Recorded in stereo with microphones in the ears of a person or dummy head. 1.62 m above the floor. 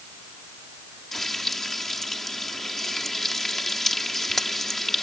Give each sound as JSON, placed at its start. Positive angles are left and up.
{"t": 1.1, "sound": "frying", "side_deg": 5}